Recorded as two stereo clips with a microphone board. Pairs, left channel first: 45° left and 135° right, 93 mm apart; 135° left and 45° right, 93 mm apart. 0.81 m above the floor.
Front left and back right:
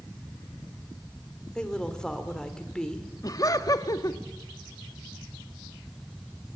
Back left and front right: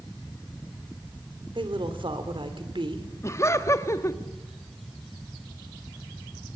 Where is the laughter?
85° left, 1.5 m.